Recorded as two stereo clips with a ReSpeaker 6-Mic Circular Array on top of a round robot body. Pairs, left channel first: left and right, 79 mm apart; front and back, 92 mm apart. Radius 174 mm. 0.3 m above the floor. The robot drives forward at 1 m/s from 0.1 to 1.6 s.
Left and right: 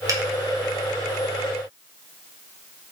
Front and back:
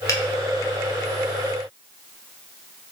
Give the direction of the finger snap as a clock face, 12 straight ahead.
2 o'clock.